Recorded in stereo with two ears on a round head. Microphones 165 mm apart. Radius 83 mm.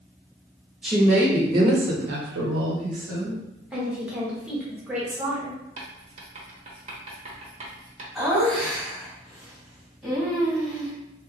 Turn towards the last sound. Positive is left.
turn(degrees=0)  # may be behind; listen again after turning